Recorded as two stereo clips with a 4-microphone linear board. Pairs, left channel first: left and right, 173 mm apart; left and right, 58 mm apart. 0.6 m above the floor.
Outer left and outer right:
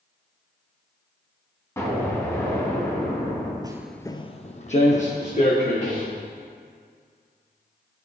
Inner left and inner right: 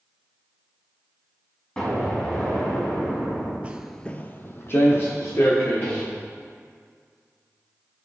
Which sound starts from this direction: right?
Footsteps, at 3.6 s.